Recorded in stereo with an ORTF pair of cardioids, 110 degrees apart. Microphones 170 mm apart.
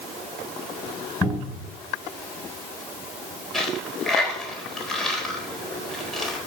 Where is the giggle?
I don't hear a giggle.